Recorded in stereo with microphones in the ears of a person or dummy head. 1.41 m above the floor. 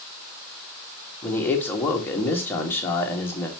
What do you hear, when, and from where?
1.2 s a man speaking: 15° left (ahead or behind), 1.7 m